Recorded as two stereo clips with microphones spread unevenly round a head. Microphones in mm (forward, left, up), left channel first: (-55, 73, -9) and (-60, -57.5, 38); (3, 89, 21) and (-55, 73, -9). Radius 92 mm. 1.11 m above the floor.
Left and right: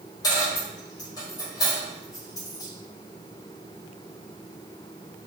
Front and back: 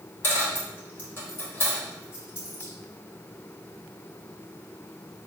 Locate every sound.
0.2 s a dropped coin: 5° left, 0.9 m